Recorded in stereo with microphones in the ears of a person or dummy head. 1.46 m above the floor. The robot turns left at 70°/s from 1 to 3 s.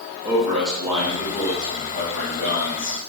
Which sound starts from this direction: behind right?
A man speaking, at 0.2 s.